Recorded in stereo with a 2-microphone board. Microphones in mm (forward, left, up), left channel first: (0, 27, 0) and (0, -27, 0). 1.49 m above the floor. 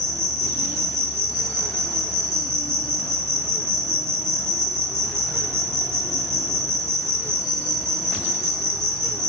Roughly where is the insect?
Right.